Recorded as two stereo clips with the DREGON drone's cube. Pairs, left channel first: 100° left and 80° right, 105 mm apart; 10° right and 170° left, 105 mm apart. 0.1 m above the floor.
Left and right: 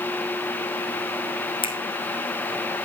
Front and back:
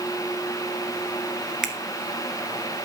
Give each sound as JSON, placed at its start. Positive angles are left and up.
{"t": 1.6, "sound": "a finger snap", "azimuth_deg": 85, "distance_m": 1.7}